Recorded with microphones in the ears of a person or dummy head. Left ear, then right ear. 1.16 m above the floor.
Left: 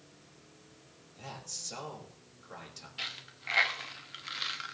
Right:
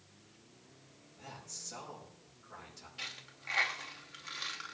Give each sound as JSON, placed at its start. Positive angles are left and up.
{"t": 1.2, "sound": "a man speaking", "side_deg": 80, "distance_m": 5.0}
{"t": 3.0, "sound": "a dropped coin", "side_deg": 15, "distance_m": 0.8}